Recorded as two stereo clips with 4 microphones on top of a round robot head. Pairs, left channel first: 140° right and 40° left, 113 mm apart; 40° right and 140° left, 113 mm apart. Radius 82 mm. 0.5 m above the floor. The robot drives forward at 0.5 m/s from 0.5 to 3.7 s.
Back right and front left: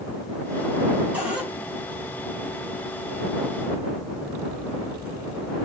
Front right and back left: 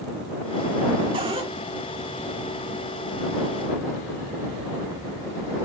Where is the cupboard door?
115° left, 3 m; by 1.5 s 120° left, 3 m.